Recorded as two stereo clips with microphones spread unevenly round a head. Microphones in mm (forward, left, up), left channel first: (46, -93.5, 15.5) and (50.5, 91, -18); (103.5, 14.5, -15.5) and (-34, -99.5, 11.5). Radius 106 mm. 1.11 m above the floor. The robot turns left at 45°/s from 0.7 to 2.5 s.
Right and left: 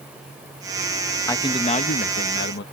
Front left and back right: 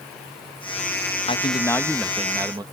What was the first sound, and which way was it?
A man speaking, 15° right.